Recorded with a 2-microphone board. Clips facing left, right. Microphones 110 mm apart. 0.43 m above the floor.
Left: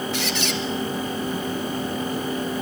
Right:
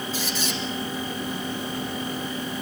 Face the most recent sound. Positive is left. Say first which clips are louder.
# left 3 dB
turn(degrees=70)  # may be behind; listen again after turning